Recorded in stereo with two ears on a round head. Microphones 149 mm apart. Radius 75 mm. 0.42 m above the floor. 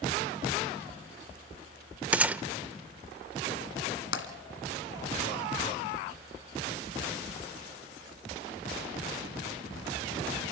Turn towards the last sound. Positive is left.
turn(degrees=80)